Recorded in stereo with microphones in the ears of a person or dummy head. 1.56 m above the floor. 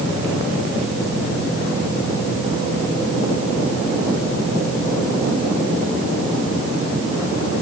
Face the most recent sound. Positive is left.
No sound to turn to.